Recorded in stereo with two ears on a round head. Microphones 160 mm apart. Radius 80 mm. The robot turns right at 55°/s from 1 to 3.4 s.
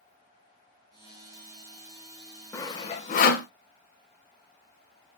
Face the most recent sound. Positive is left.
turn(degrees=55)  # may be behind; listen again after turning